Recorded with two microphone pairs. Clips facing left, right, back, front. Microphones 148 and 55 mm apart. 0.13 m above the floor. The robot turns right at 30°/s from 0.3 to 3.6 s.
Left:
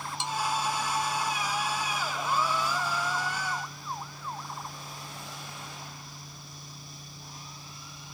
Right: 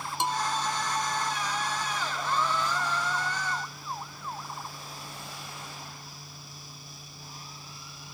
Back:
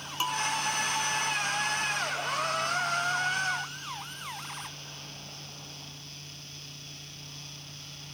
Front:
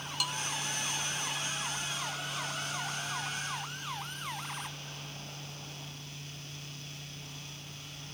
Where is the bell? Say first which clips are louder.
Right 3 dB, back 7 dB; 120° right; by 0.5 s 115° right.